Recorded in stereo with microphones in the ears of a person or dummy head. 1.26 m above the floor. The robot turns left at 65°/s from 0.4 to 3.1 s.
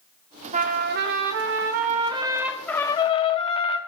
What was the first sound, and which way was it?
A trumpet, 45° right.